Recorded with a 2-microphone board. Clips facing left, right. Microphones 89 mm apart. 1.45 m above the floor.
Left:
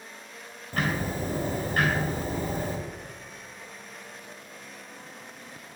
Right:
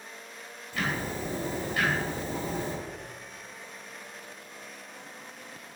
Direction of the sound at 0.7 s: 55° left (ahead or behind).